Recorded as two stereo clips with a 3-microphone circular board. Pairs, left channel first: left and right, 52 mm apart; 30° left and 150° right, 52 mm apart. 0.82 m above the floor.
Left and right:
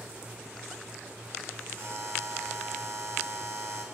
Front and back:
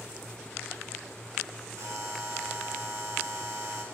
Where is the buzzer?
130° right, 3.5 m.